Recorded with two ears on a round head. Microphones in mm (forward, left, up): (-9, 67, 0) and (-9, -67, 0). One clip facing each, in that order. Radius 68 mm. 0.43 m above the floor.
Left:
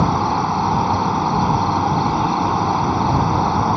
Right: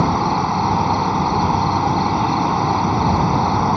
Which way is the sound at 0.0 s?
5° right (ahead or behind).